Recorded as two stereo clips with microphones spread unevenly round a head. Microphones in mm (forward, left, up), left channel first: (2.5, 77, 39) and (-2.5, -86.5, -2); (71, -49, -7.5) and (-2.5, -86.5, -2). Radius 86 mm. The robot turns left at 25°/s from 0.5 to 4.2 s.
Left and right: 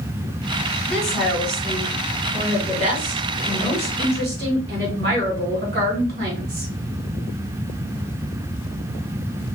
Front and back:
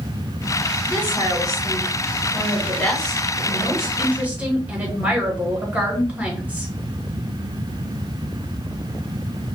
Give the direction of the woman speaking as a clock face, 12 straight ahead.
12 o'clock.